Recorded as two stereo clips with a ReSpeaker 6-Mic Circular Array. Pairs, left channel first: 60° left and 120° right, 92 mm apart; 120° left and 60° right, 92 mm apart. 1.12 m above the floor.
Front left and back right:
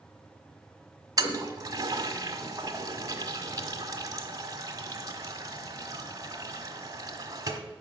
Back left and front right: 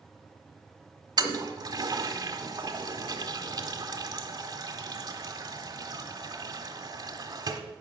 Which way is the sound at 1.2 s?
80° right.